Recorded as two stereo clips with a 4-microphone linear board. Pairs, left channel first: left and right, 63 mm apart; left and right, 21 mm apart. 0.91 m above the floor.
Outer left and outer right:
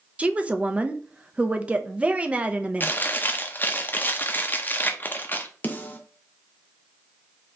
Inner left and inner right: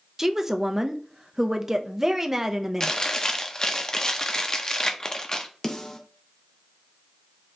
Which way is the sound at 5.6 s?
25° left (ahead or behind).